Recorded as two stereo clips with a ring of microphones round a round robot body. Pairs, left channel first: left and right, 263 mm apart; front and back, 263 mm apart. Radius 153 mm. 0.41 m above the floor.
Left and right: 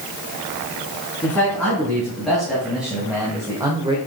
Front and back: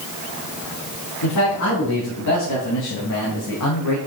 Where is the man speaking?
5° left, 4 m; by 4.0 s 20° right, 1.4 m.